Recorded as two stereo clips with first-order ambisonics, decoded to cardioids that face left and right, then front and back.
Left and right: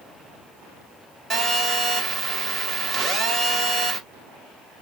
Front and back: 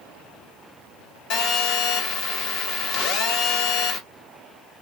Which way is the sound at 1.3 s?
25° right.